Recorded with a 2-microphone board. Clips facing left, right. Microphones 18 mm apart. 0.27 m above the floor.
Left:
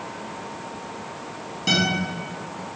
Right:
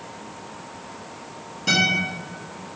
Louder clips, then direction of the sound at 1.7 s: Right 2 dB; 20° left (ahead or behind).